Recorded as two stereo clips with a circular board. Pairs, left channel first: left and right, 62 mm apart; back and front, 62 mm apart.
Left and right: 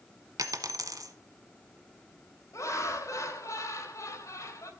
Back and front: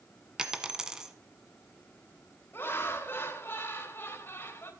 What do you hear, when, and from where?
0.4 s a dropped coin: 80° right, 1.3 m
2.5 s laughter: 125° left, 3 m